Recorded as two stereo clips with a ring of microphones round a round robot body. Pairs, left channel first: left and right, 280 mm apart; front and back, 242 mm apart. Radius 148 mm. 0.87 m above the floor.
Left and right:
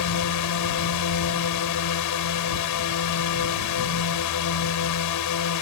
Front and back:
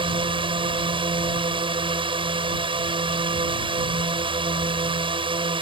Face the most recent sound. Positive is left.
turn(degrees=110)